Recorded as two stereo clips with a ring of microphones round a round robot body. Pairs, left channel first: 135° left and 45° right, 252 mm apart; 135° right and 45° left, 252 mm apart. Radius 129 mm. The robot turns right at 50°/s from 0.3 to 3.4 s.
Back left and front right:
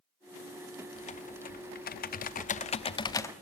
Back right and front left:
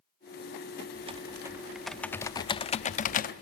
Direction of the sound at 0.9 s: 90° left.